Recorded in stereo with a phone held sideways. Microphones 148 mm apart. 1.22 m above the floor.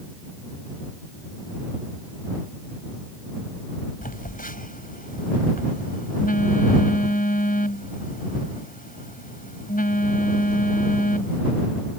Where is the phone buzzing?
70° left (ahead or behind).